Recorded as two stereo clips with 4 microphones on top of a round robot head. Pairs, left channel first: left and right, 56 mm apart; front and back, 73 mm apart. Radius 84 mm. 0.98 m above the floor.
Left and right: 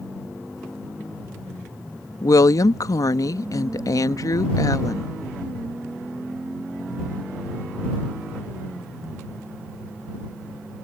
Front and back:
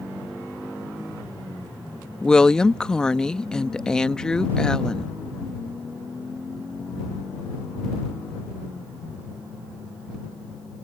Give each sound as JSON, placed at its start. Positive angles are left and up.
{"t": 2.2, "sound": "a woman speaking", "azimuth_deg": 80}